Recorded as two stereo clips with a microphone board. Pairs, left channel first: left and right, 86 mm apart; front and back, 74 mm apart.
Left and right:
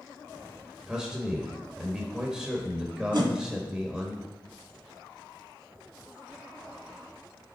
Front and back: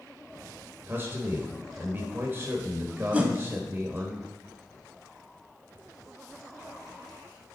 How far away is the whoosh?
About 0.8 m.